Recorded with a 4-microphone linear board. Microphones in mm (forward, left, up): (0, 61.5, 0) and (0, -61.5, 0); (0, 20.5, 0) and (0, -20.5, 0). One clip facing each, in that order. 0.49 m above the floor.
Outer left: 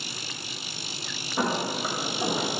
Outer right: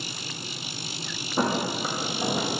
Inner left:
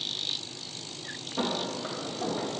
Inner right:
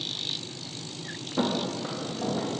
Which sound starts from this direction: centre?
Footsteps, at 1.4 s.